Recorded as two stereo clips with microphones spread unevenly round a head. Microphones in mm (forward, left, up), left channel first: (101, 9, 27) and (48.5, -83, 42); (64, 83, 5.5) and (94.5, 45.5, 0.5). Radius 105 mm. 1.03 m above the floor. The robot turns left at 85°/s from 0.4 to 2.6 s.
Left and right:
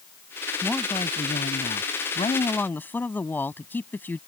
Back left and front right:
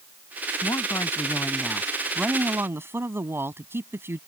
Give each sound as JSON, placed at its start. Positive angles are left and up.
{"t": 0.6, "sound": "a woman speaking", "azimuth_deg": 155}